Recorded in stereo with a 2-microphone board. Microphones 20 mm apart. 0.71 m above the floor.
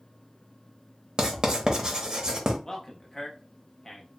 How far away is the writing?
About 0.8 m.